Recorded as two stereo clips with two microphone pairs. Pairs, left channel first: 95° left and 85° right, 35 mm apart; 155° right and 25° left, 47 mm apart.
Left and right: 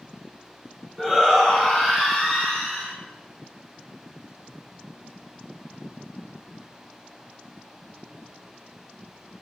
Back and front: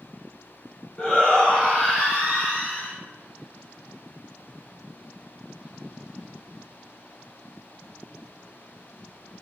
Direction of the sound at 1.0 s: 175° left.